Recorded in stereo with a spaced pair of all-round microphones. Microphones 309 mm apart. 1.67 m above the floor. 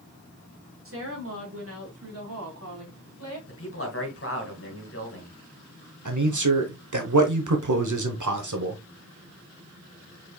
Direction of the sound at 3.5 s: 45° left (ahead or behind).